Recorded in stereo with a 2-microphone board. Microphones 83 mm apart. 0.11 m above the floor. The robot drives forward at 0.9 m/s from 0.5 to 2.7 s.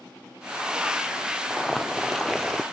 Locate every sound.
1.5 s boiling: 5° left (ahead or behind)